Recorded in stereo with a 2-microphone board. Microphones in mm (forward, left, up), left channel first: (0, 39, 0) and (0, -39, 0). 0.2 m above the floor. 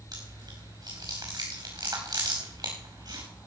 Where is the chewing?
60° right (ahead or behind), 5 m.